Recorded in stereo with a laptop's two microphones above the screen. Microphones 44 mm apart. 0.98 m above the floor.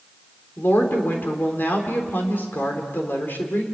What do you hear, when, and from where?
0.6 s a woman speaking: 50° left (ahead or behind), 3.5 m